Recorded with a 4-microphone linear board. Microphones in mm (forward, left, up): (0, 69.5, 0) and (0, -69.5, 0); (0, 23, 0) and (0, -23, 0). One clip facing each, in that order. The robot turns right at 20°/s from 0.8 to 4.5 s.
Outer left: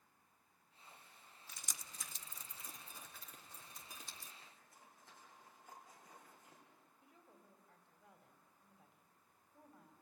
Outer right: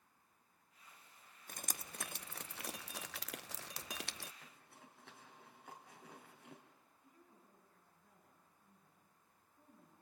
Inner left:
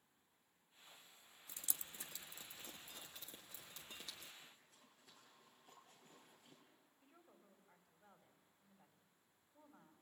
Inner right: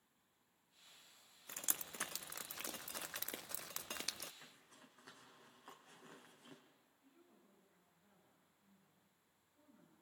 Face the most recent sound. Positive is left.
turn(degrees=80)